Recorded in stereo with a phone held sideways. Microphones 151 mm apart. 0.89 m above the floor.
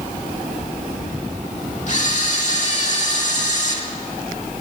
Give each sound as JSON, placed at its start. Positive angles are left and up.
{"t": 1.9, "sound": "a camera shutter", "side_deg": 55, "distance_m": 2.0}